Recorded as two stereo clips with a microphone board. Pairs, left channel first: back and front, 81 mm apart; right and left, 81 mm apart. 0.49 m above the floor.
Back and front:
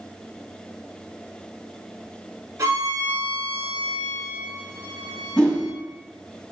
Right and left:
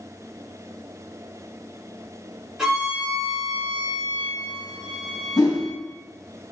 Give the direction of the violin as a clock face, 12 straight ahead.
12 o'clock.